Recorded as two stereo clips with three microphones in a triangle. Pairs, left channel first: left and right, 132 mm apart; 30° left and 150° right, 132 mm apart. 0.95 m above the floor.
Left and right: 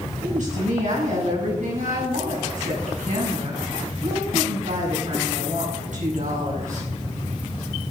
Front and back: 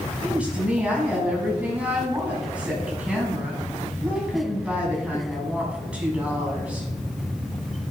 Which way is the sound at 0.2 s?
70° right.